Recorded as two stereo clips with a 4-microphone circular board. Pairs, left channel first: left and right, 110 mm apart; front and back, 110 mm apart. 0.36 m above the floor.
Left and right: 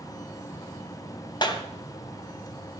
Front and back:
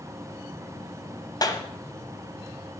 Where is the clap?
50° left, 1.4 m.